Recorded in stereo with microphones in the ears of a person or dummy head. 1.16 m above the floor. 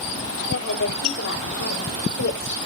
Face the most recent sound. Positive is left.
turn(degrees=70)  # may be behind; listen again after turning